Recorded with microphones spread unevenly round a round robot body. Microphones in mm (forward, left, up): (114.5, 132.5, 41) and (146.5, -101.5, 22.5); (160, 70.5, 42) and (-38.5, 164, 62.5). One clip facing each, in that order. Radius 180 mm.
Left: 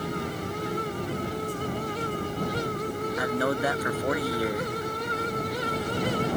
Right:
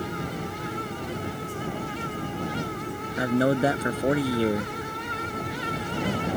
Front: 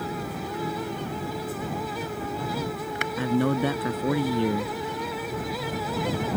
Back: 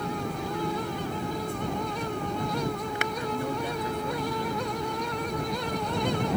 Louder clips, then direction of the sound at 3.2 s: Right 7 dB, front 11 dB; 20° right.